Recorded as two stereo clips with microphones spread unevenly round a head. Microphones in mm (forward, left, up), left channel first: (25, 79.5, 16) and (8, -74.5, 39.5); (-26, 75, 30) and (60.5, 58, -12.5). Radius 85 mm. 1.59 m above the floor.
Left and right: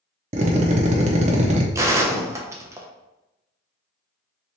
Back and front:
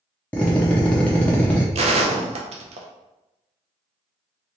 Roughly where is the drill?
Behind right.